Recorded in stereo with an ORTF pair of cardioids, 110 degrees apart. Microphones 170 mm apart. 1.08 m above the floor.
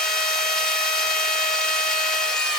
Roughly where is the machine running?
Ahead.